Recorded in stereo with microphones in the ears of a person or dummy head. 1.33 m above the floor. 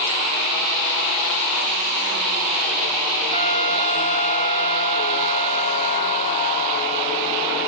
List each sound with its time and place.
3.3 s a trumpet: 85° right, 4.5 m